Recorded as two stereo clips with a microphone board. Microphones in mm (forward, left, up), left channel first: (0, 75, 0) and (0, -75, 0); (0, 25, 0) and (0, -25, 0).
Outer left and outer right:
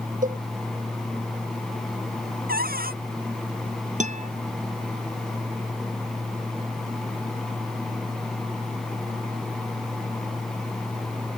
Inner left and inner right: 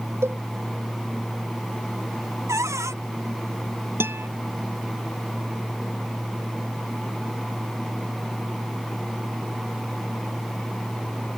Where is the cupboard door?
85° right.